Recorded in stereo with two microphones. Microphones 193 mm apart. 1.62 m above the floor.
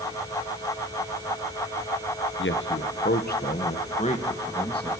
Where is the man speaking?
85° left, 1.3 m; by 4.9 s 25° left (ahead or behind), 2.5 m.